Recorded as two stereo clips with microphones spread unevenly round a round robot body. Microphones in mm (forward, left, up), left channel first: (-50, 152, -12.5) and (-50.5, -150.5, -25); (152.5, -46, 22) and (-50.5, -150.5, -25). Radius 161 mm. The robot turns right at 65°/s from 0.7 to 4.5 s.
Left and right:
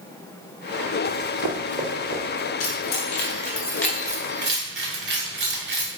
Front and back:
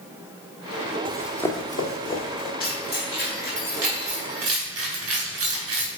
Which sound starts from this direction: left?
Keys jangling, at 2.6 s.